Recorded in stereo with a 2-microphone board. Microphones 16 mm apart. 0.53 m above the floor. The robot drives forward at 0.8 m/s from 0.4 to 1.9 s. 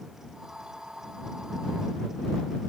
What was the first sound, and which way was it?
Only background noise.